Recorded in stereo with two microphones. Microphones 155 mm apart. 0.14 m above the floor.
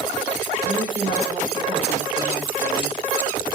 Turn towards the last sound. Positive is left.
turn(degrees=-35)  # may be behind; listen again after turning